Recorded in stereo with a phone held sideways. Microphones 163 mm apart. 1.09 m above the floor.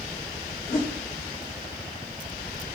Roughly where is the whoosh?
Left.